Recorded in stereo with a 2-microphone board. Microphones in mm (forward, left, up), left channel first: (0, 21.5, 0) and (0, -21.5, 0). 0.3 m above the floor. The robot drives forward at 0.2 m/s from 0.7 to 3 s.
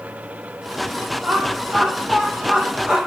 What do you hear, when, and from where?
1.2 s laughter: 15° right (ahead or behind), 1.4 m